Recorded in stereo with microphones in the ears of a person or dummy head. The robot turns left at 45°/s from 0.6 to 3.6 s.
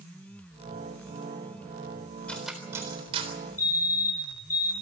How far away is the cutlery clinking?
About 3.5 m.